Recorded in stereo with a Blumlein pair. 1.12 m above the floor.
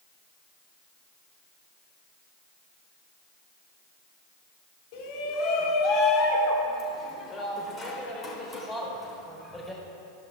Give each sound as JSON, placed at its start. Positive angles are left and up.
{"t": 4.9, "sound": "a shout", "azimuth_deg": 45, "distance_m": 3.0}